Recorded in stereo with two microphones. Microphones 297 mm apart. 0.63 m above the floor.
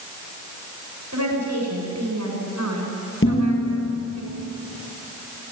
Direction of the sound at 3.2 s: 45° left (ahead or behind).